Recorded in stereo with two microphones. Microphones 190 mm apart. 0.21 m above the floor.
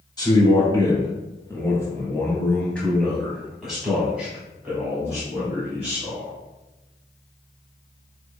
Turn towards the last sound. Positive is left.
turn(degrees=-15)  # may be behind; listen again after turning